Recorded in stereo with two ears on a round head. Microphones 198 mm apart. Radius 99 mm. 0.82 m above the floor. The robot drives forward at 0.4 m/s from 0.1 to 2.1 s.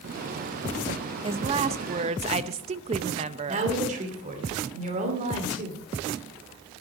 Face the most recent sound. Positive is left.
turn(degrees=-35)  # may be behind; listen again after turning